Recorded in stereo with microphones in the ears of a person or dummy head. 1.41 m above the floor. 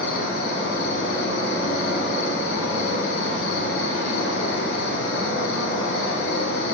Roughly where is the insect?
Left.